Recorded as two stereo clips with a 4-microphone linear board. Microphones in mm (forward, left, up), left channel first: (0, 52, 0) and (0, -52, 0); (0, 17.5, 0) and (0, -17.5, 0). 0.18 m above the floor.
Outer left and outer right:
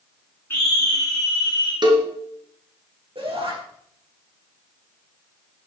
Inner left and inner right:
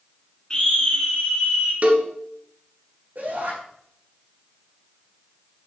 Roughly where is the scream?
Left.